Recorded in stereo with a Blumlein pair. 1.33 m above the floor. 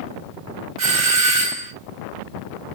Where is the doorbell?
35° right, 1.3 m.